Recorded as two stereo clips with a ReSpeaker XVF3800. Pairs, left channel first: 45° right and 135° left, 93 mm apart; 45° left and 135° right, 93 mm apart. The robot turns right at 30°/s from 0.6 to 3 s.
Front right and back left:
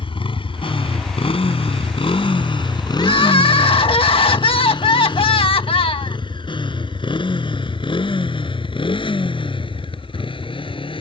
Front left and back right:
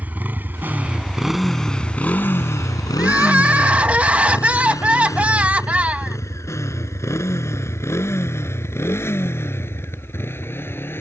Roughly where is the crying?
Ahead right.